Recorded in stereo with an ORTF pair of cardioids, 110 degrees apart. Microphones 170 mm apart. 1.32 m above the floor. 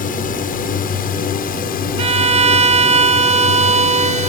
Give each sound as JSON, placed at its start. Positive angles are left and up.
{"t": 0.0, "sound": "a drone", "azimuth_deg": 55}
{"t": 2.0, "sound": "a violin", "azimuth_deg": -40}